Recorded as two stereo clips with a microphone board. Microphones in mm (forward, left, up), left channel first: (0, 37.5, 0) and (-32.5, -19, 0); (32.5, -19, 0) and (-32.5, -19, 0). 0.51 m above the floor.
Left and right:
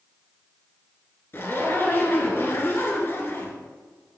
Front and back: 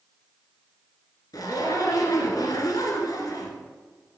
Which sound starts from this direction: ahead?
A zipper, at 1.3 s.